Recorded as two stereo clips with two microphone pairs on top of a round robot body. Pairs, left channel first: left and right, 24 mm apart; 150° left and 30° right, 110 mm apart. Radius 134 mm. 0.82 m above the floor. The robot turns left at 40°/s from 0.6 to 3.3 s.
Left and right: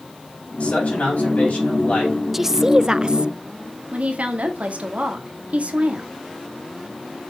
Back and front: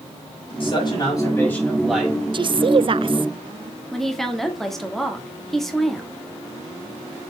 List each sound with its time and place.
0.6 s a man speaking: 110° left, 4.5 m; by 2.2 s 50° left, 4.5 m
2.3 s a woman speaking: 10° right, 0.6 m; by 3.3 s 50° right, 0.6 m
3.9 s a woman speaking: 125° right, 1.7 m